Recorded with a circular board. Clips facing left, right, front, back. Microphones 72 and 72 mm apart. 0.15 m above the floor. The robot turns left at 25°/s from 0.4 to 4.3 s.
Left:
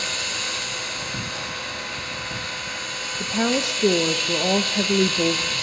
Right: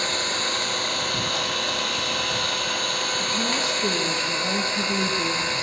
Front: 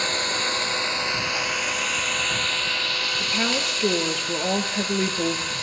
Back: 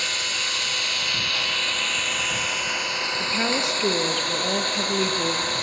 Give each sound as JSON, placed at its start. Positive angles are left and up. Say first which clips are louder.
{"t": 0.0, "sound": "an engine running", "louder": "right 3 dB, front 4 dB", "azimuth_deg": -45, "distance_m": 2.5}
{"t": 3.2, "sound": "a woman speaking", "louder": "left 8 dB, back 1 dB", "azimuth_deg": 105, "distance_m": 2.5}